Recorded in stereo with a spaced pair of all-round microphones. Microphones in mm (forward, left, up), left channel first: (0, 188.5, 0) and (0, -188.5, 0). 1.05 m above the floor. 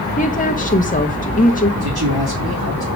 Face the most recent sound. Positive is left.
turn(degrees=-70)  # may be behind; listen again after turning